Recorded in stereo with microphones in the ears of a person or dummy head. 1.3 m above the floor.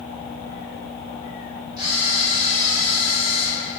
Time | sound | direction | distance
1.8 | a camera shutter | 25° right (ahead or behind) | 2.0 m